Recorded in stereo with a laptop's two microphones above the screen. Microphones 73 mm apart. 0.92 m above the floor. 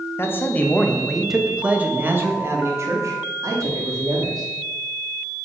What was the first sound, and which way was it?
A man speaking, 35° left (ahead or behind).